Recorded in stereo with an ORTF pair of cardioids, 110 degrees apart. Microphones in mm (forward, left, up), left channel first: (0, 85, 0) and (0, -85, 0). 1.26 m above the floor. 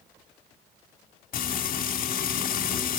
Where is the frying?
60° left, 3.5 m.